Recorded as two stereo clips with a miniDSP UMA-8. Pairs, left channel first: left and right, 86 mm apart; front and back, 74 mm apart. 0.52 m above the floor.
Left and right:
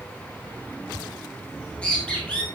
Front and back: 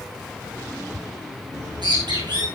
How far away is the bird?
About 6.5 m.